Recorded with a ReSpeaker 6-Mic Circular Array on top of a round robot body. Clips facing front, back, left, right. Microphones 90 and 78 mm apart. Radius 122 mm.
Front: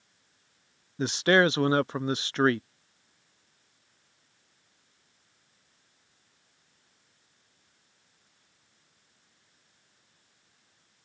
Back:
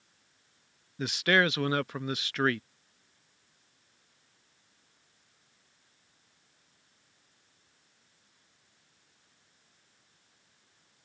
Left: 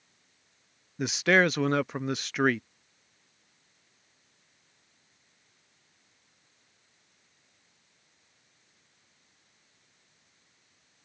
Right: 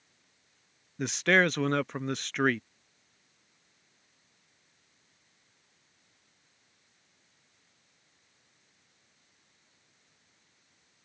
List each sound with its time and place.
1.0 s a man speaking: 10° left